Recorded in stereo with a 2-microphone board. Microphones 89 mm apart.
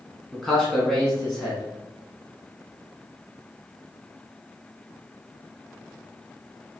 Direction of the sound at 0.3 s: 5° left (ahead or behind).